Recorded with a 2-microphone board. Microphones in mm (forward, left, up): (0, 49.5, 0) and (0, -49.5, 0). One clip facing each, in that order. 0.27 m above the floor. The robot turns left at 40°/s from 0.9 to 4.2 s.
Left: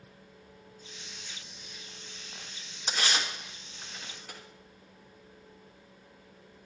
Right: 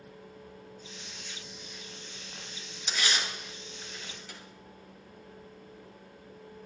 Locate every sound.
2.9 s tearing paper: 50° left (ahead or behind), 2 m; by 4.4 s 55° left (ahead or behind), 2 m